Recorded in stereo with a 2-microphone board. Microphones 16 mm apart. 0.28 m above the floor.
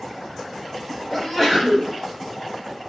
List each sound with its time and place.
1.1 s a sneeze: 35° left (ahead or behind), 1.8 m